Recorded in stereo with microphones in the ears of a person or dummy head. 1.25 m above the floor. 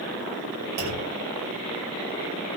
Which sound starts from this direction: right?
A clunk, at 0.8 s.